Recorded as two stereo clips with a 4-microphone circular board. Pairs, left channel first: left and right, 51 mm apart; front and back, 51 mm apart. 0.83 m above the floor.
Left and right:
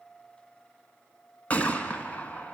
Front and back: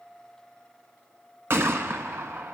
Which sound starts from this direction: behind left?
A gunshot, at 1.5 s.